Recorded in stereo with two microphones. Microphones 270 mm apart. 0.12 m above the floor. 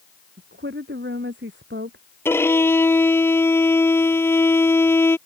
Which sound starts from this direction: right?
A woman speaking, at 0.4 s.